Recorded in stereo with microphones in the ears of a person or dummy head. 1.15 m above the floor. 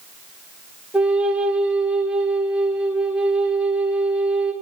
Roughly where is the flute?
Centre.